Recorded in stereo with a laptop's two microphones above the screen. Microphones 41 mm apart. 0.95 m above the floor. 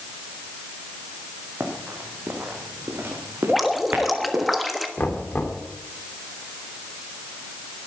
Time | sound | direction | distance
1.6 | running footsteps | 50° right (ahead or behind) | 4.5 m
3.5 | dripping | 5° right (ahead or behind) | 1.3 m
5.0 | knocking | 50° left (ahead or behind) | 2.5 m